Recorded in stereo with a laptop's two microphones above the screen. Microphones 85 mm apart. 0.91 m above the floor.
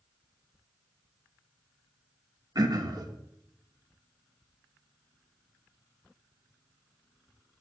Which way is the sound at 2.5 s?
50° right (ahead or behind).